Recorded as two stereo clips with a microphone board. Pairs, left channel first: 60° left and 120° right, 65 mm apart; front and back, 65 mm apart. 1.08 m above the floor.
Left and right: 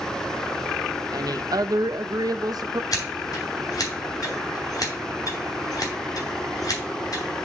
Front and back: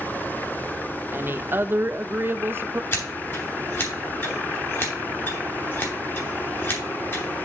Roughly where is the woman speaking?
Behind right.